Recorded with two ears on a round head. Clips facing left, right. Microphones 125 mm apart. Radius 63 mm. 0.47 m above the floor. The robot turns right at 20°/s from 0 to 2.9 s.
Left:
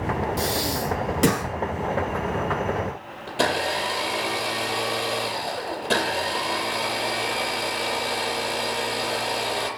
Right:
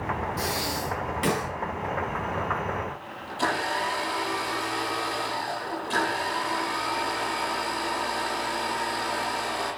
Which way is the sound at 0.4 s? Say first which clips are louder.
Left 4 dB; 30° left (ahead or behind).